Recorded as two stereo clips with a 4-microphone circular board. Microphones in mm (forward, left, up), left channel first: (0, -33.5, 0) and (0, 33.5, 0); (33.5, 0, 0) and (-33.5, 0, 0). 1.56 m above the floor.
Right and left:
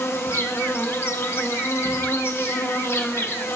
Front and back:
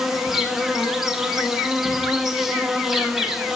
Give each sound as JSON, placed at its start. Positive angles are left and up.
{"t": 0.0, "sound": "an insect", "azimuth_deg": -100, "distance_m": 0.7}